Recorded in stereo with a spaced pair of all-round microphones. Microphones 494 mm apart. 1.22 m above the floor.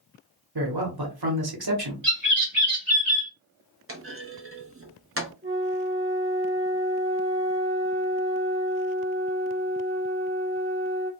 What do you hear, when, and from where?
0.6 s a man speaking: 50° right (ahead or behind), 1.0 m
2.0 s a bird: 40° right (ahead or behind), 1.6 m
3.9 s a clunk: 30° right (ahead or behind), 0.6 m
5.4 s a flute: 25° right (ahead or behind), 0.8 m